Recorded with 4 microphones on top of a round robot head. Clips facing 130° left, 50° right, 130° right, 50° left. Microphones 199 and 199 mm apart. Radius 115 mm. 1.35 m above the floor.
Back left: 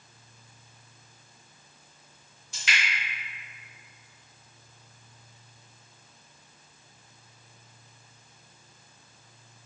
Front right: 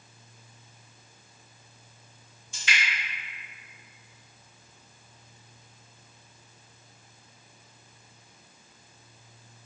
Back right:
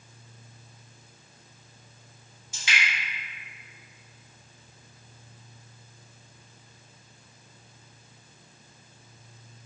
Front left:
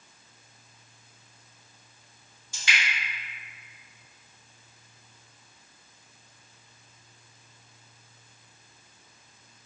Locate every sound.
2.5 s dripping: 160° left, 1.8 m